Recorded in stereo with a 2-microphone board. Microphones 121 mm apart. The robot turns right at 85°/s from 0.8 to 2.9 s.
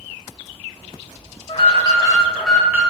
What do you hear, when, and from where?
1.5 s an alarm: 95° left, 0.7 m; by 2.8 s 155° right, 0.7 m